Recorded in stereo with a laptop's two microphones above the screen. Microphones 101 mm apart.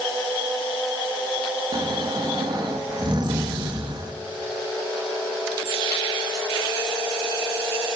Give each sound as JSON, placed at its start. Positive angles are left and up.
{"t": 1.7, "sound": "snoring", "side_deg": -45, "distance_m": 1.3}